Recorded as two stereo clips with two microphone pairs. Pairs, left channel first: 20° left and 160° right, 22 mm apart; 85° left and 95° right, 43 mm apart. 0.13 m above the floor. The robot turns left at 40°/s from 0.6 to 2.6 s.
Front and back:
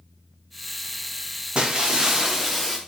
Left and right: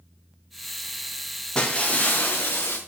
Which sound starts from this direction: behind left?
Breaking glass, at 1.6 s.